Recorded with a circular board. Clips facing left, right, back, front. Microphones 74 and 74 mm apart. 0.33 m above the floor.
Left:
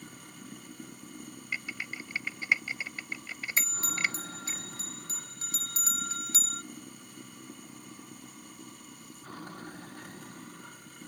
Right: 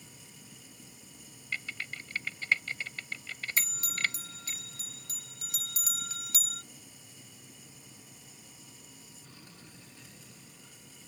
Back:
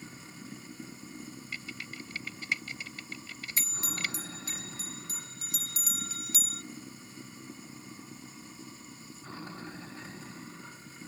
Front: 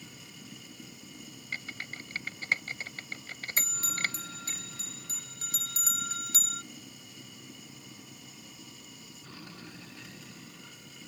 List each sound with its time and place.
0.0 s running water: 120° left
1.5 s typing on a keyboard: 20° left
3.6 s a bell: 45° left